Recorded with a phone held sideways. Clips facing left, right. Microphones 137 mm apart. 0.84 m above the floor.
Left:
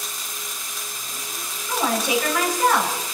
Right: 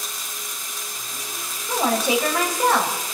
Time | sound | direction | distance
1.7 | a woman speaking | 30° right (ahead or behind) | 5 m